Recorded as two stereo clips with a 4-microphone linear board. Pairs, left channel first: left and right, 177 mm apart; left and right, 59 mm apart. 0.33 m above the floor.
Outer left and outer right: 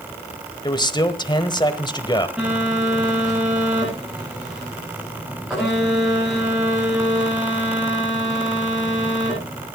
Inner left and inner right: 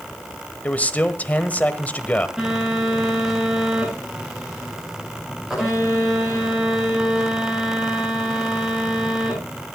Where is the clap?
I don't hear a clap.